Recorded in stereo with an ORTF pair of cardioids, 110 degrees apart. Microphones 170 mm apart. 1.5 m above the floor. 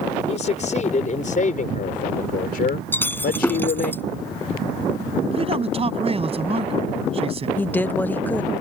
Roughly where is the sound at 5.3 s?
Ahead right.